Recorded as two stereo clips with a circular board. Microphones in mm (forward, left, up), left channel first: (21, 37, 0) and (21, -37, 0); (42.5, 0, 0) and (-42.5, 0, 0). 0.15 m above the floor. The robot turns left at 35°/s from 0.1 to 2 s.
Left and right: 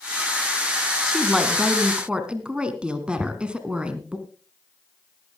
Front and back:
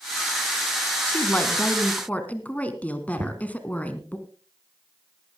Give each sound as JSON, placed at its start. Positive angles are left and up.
{"t": 1.1, "sound": "a woman speaking", "azimuth_deg": -5, "distance_m": 1.5}
{"t": 3.2, "sound": "knocking", "azimuth_deg": -165, "distance_m": 1.2}